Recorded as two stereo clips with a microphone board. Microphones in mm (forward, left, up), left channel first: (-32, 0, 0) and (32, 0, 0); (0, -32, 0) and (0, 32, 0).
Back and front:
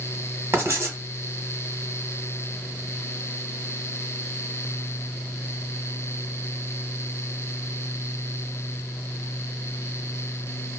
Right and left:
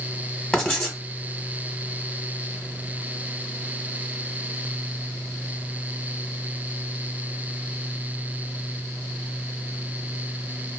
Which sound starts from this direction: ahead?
Writing, at 0.5 s.